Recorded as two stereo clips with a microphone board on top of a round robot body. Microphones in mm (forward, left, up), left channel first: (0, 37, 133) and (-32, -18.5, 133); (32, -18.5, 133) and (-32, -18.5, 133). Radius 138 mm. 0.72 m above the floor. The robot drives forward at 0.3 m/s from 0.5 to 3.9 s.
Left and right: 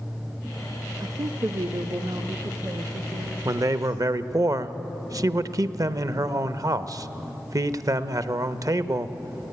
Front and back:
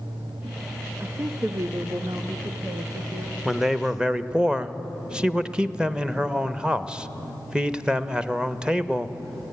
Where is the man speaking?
95° right, 0.8 m; by 9.5 s 105° right, 0.8 m.